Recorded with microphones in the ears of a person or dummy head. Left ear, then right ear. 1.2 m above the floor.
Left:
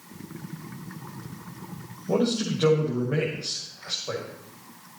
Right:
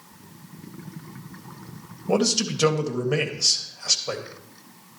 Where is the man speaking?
65° right (ahead or behind), 1.7 m.